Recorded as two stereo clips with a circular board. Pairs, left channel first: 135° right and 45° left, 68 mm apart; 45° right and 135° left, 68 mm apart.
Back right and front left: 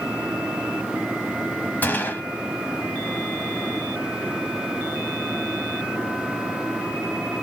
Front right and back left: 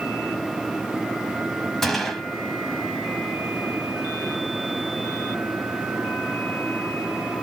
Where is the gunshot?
125° right, 0.9 m.